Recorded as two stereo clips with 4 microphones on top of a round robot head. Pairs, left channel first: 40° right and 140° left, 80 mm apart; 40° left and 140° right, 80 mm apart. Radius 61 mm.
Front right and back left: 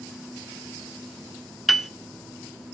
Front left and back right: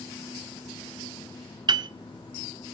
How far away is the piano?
About 1.0 m.